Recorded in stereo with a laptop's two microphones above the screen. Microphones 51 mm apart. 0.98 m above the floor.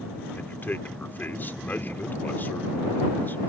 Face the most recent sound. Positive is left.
turn(degrees=40)  # may be behind; listen again after turning